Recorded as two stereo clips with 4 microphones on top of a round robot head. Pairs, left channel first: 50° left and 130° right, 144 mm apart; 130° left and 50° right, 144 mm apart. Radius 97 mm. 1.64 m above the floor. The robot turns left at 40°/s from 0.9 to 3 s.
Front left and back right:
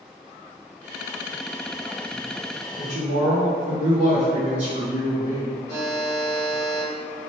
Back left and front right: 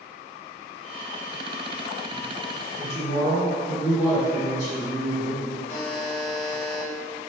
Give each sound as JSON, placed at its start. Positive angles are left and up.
{"t": 2.8, "sound": "a woman speaking", "azimuth_deg": -175, "distance_m": 0.9}
{"t": 5.7, "sound": "a buzzer", "azimuth_deg": 5, "distance_m": 0.9}